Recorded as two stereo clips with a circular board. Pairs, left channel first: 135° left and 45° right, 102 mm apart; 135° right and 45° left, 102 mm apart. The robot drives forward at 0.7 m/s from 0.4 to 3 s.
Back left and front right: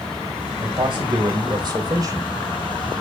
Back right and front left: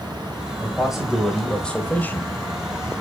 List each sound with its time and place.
0.6 s a man speaking: 35° right, 2.0 m; by 2.3 s 85° right, 1.5 m